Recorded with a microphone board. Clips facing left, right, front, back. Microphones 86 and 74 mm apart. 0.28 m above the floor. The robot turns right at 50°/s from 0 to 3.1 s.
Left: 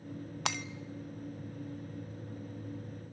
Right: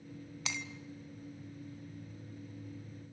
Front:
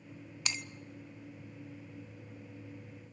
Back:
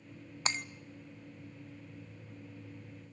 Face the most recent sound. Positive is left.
turn(degrees=-100)